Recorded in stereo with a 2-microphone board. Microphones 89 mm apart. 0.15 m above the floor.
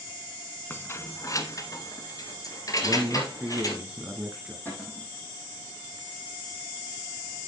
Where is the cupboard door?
20° left (ahead or behind), 5.5 m.